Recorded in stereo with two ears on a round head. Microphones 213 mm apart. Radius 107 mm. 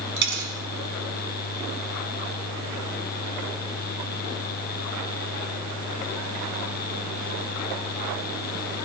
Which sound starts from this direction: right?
A dropped coin, at 0.2 s.